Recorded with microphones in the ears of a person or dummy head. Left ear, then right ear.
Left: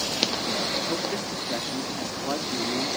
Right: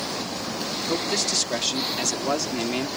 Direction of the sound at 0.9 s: 85° right.